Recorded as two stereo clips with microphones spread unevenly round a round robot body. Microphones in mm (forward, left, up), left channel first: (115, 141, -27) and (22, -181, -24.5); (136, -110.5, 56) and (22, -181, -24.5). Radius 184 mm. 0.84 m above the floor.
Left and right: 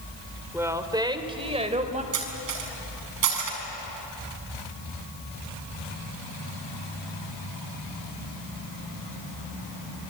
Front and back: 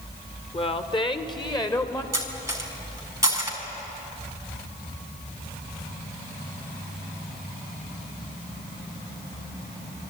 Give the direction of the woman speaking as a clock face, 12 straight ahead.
1 o'clock.